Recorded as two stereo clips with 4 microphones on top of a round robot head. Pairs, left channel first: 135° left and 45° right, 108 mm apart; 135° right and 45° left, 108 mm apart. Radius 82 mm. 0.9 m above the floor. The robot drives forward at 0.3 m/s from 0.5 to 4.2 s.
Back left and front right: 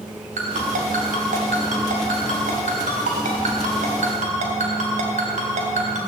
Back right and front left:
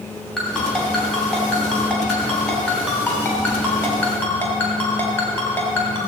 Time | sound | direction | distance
0.4 | a ringtone | 50° right | 4 m